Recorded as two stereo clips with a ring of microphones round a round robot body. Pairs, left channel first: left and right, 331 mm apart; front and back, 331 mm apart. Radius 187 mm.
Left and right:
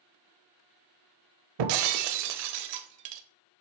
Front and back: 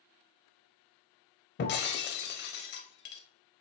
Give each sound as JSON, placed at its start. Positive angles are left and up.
{"t": 1.6, "sound": "breaking glass", "azimuth_deg": -65, "distance_m": 0.6}